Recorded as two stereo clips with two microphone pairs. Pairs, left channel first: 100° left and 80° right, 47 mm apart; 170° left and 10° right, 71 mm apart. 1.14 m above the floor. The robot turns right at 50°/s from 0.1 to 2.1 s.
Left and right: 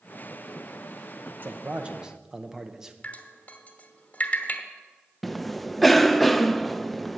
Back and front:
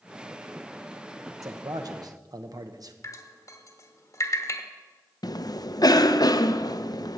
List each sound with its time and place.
1.4 s a man speaking: 35° right, 0.9 m; by 2.9 s straight ahead, 0.9 m
3.0 s dripping: 155° left, 1.0 m
5.2 s a cough: 170° right, 0.6 m